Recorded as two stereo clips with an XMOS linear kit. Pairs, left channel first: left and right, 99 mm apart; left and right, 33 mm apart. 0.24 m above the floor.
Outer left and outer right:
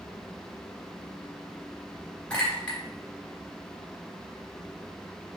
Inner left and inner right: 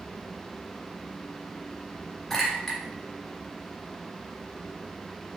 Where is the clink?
10° left (ahead or behind), 2.5 m.